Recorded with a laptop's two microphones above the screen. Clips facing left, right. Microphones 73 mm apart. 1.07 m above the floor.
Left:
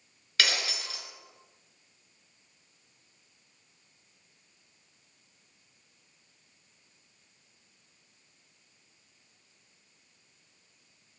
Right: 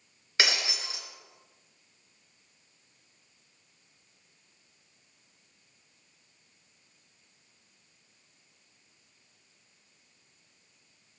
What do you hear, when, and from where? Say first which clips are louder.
0.4 s breaking glass: right 1 dB; 25° right (ahead or behind), 3 m